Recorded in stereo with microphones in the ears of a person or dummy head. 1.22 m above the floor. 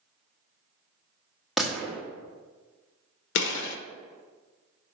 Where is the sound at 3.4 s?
80° left, 1.1 m.